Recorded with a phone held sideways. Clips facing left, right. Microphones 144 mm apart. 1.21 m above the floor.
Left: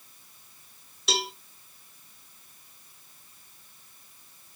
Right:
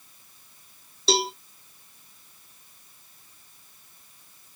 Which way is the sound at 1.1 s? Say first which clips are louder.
Right 7 dB; 30° right (ahead or behind).